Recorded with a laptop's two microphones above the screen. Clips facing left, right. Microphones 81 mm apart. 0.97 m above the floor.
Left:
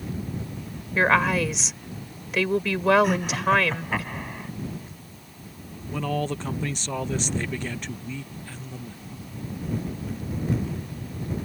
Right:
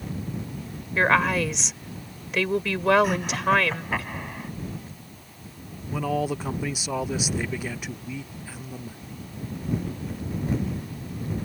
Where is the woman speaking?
5° left (ahead or behind).